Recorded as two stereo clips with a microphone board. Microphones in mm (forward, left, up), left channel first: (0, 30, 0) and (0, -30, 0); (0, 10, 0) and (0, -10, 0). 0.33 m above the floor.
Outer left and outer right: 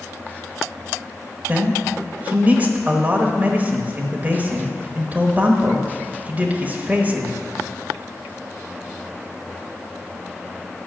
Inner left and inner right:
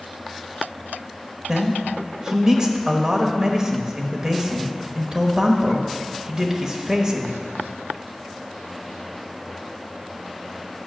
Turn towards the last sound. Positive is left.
turn(degrees=-30)  # may be behind; listen again after turning